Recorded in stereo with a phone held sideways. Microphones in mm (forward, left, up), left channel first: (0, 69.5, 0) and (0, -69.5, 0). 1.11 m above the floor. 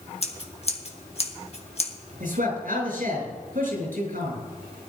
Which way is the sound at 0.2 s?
45° left (ahead or behind).